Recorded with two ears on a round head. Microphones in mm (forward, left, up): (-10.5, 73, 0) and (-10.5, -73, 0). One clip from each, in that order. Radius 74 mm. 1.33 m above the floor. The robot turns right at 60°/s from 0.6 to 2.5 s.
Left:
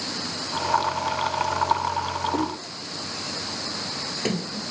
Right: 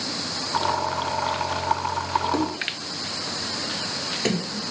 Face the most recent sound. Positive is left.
turn(degrees=-10)  # may be behind; listen again after turning